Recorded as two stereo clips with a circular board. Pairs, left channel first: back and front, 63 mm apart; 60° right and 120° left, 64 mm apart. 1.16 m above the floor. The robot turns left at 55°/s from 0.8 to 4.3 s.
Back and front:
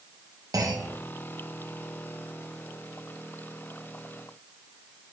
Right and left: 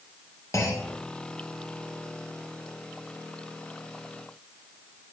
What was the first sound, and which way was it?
A clunk, 25° right.